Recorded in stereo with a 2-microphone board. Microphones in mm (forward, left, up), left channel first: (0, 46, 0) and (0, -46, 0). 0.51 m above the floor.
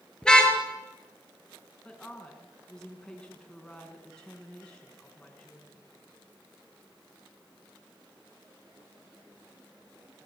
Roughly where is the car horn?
Centre.